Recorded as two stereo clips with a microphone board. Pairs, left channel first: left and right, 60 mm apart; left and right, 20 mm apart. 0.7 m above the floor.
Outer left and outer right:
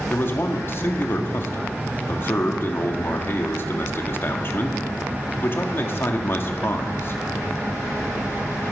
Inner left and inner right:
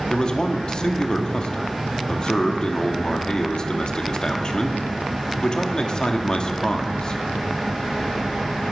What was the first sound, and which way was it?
A man speaking, 40° left (ahead or behind).